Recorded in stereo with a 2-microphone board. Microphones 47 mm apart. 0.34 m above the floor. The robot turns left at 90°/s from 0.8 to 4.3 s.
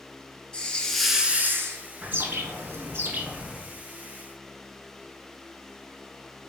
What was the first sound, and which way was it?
A hiss, 20° left.